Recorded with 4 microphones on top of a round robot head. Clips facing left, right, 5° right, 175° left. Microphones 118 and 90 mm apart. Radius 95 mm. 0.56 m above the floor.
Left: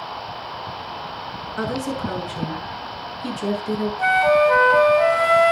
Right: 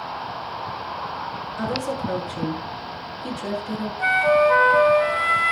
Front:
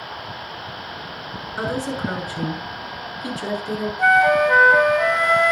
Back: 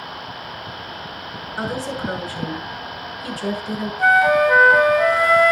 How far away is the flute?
About 1.1 m.